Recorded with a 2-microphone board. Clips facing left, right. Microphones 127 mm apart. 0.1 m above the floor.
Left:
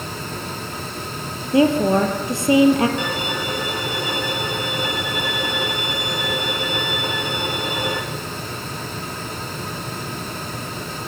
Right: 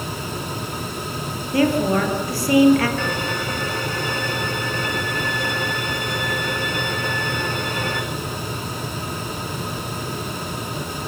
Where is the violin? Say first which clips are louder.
Even; 15° left (ahead or behind), 3.5 m.